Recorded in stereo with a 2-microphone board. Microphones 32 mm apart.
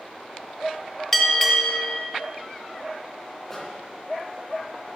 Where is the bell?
5° left (ahead or behind), 1.1 m.